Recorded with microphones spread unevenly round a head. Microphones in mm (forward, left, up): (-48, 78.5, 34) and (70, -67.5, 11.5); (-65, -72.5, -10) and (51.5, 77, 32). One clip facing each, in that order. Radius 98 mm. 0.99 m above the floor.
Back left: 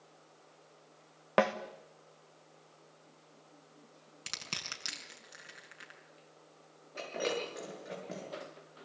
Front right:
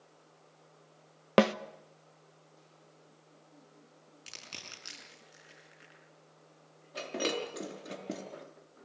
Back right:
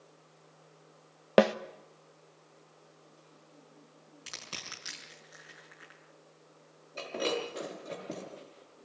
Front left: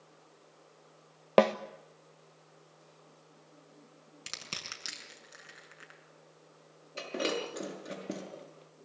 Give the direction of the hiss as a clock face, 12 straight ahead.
No hiss in this recording.